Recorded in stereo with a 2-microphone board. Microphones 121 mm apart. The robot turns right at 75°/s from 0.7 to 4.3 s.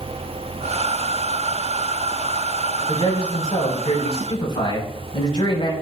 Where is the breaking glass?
No breaking glass in this recording.